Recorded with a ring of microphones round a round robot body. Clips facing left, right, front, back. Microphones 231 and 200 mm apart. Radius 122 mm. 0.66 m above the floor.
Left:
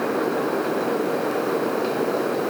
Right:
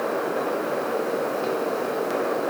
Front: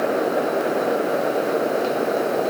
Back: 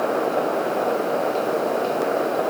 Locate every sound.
Only background noise.